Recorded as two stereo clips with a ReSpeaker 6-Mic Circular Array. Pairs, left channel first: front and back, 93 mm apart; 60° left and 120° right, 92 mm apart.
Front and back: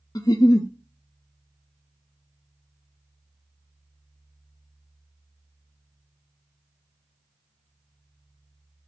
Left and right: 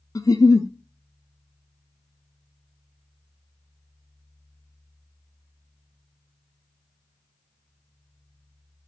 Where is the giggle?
20° left, 0.5 m.